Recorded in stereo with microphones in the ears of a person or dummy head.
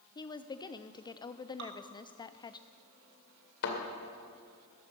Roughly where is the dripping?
Right.